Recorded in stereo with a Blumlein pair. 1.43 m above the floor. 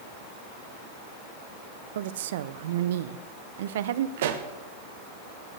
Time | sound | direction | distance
1.9 | a woman speaking | 60° right | 0.7 m
4.2 | a pop | 55° right | 1.3 m